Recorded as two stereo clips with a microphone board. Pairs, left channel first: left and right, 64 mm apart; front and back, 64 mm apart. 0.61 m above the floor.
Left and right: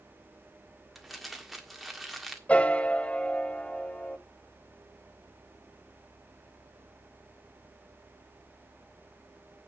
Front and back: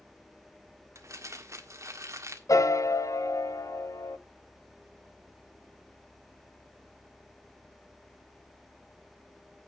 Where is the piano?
20° left, 0.9 m.